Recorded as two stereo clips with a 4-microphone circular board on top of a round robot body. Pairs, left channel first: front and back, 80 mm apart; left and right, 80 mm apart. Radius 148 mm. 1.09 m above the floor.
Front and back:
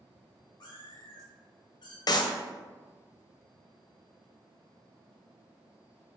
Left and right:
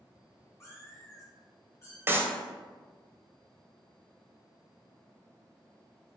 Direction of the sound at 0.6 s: 35° left.